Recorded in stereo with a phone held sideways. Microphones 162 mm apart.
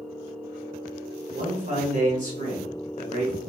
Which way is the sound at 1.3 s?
50° right (ahead or behind).